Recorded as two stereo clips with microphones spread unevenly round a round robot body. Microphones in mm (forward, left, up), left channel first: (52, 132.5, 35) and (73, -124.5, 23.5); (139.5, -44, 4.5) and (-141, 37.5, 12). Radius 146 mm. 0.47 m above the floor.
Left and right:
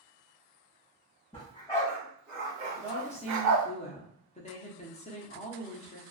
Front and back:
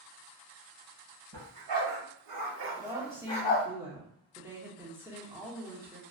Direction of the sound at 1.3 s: 170° left.